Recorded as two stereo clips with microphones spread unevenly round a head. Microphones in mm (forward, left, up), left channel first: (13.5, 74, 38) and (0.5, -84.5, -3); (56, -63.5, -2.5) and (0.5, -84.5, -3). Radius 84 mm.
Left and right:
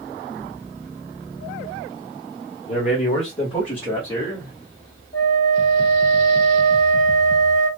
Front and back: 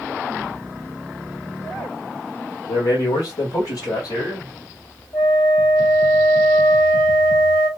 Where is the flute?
40° left, 3 m.